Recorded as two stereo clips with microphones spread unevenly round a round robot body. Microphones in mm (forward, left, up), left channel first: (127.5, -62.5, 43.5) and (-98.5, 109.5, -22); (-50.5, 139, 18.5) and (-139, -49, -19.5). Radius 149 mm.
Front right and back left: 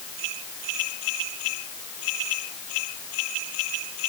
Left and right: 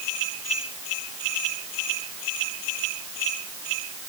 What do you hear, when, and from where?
Only background noise.